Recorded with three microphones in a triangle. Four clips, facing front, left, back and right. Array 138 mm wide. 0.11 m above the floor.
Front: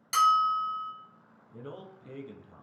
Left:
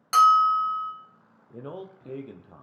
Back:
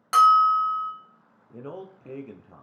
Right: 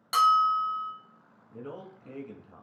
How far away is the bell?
About 0.8 m.